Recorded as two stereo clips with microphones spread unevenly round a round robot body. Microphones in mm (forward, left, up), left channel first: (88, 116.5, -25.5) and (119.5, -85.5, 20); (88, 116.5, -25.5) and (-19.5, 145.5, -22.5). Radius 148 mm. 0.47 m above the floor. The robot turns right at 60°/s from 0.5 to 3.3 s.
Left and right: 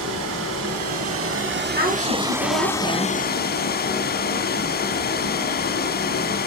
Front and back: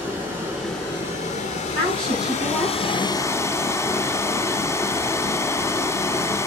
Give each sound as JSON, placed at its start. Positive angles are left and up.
{"t": 0.0, "sound": "running water", "azimuth_deg": -115, "distance_m": 1.1}
{"t": 1.7, "sound": "a woman speaking", "azimuth_deg": -145, "distance_m": 3.0}